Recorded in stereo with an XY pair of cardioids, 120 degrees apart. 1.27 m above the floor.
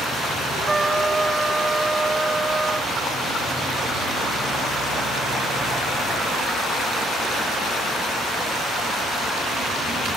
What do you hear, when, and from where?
0.7 s a trumpet: 15° right